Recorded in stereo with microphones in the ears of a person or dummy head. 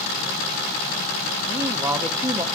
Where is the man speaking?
15° right (ahead or behind), 0.7 m.